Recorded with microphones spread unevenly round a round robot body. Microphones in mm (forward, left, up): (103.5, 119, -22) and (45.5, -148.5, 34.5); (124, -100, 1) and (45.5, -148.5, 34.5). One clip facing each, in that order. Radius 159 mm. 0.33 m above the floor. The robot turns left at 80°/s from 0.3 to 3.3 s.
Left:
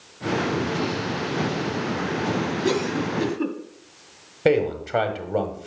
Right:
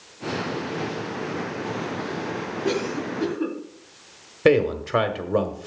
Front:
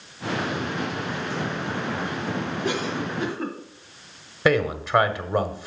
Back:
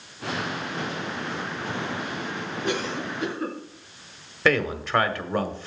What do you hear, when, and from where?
2.6 s a cough: 115° left, 2.0 m; by 3.6 s 60° left, 2.0 m
4.5 s a man speaking: 20° right, 1.5 m